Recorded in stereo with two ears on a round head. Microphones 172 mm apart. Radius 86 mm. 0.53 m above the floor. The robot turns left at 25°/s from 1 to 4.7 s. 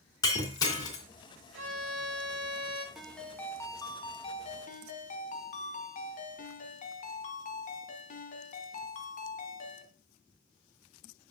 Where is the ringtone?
Straight behind, 1.8 m; by 9.9 s 135° left, 1.8 m.